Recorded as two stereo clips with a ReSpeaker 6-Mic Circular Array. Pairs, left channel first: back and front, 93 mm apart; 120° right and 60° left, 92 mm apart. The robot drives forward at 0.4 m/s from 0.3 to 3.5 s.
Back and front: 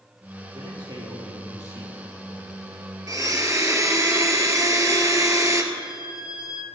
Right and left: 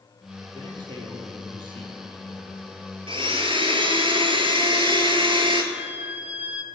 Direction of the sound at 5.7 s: 135° left.